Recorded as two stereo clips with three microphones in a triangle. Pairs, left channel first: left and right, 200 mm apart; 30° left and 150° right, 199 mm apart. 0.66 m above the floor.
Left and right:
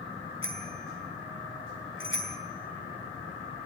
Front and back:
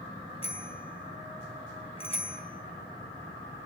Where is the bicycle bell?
90° left, 3.5 m.